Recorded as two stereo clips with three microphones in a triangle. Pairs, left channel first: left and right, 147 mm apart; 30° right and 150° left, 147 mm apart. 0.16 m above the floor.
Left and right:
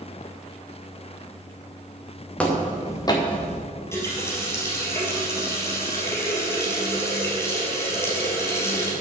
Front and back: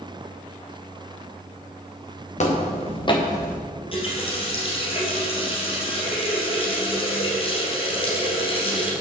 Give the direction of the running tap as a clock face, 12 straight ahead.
11 o'clock.